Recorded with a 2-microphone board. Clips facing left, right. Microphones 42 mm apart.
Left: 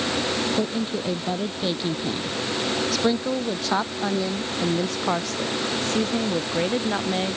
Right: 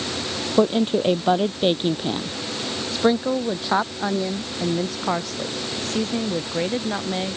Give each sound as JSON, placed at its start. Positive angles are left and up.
{"t": 0.6, "sound": "a woman speaking", "side_deg": -70}